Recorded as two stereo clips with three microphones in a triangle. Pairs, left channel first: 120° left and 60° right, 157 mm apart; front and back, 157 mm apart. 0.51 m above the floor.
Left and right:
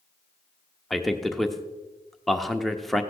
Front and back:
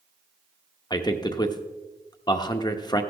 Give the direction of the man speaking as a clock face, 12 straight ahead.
11 o'clock.